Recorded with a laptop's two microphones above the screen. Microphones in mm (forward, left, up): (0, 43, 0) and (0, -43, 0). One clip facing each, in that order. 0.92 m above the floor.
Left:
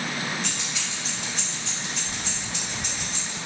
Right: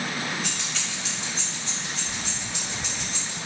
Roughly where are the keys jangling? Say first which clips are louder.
Even; centre.